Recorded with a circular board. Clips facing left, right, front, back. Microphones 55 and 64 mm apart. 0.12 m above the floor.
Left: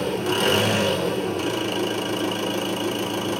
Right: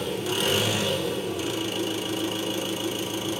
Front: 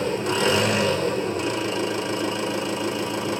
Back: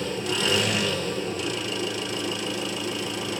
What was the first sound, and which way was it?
An engine running, 50° left.